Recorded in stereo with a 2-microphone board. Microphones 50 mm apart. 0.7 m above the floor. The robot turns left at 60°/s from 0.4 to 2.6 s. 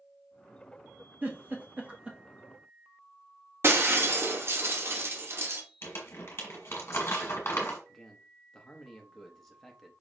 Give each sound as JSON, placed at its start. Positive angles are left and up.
{"t": 1.2, "sound": "a giggle", "side_deg": -35, "distance_m": 1.2}
{"t": 3.6, "sound": "breaking glass", "side_deg": -50, "distance_m": 0.9}
{"t": 5.8, "sound": "crumpling", "side_deg": 50, "distance_m": 1.6}
{"t": 7.9, "sound": "a man speaking", "side_deg": 5, "distance_m": 0.9}